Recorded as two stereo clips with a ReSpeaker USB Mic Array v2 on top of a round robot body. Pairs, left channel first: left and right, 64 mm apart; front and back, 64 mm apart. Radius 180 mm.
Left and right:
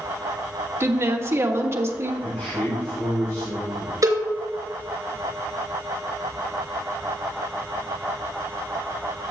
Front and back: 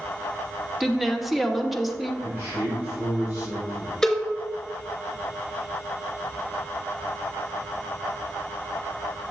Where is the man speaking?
125° left, 4 m.